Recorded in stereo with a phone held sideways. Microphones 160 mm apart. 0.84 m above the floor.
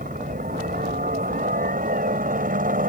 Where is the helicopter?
60° right (ahead or behind).